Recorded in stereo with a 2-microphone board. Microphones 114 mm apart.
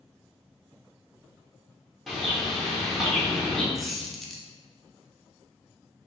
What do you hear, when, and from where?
2.1 s a bird: centre (ahead or behind), 1.0 m
3.8 s a squeak: centre (ahead or behind), 0.6 m